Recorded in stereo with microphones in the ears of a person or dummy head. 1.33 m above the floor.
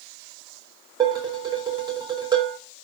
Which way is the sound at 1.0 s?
20° right (ahead or behind).